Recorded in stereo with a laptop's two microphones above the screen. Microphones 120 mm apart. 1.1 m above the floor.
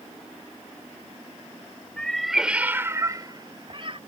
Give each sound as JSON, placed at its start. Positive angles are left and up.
{"t": 2.0, "sound": "a cat meowing", "side_deg": 10}